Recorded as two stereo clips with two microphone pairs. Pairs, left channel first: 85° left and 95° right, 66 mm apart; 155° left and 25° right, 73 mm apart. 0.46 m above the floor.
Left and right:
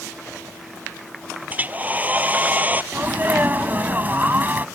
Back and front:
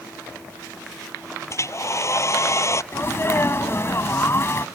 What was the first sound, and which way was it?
A hair dryer, 160° right.